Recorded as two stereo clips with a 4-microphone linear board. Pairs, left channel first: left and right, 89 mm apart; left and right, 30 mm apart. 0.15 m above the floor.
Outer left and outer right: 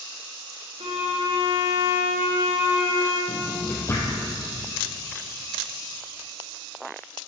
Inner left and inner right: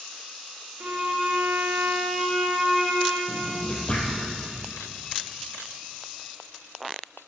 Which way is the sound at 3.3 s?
30° left (ahead or behind).